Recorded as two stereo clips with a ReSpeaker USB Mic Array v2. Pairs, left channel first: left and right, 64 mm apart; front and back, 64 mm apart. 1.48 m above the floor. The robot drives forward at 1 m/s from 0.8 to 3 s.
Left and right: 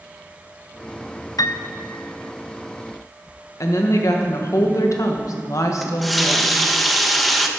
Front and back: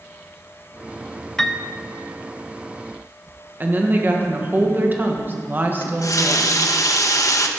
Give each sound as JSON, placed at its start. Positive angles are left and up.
{"t": 1.4, "sound": "a piano", "azimuth_deg": 80, "distance_m": 0.5}
{"t": 3.6, "sound": "a woman speaking", "azimuth_deg": 120, "distance_m": 1.5}
{"t": 5.8, "sound": "a running tap", "azimuth_deg": 0, "distance_m": 0.9}